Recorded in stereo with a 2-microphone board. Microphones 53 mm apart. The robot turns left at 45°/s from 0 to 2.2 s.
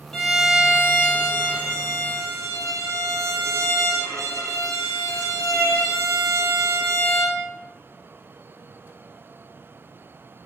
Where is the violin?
10° left, 1.6 m; by 7.4 s 85° right, 1.6 m.